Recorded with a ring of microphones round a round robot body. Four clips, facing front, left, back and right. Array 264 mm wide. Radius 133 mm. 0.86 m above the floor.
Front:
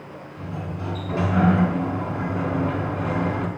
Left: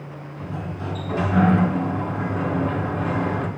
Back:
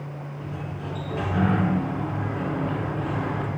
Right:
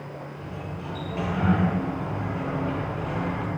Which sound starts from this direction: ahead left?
A sliding door, at 0.4 s.